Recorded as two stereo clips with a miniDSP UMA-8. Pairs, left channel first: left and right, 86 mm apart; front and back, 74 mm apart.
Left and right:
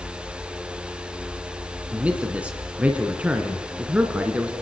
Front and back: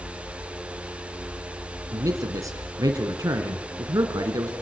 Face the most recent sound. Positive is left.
turn(degrees=-160)